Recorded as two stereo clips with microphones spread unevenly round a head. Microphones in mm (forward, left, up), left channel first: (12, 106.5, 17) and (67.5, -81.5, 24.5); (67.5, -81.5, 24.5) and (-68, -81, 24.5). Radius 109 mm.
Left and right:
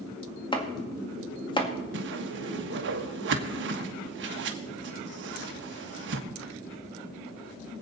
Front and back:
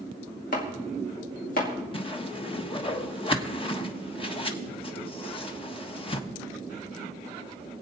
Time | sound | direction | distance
0.5 | chopping | 40° left | 2.0 m
1.9 | a whoosh | 50° right | 1.4 m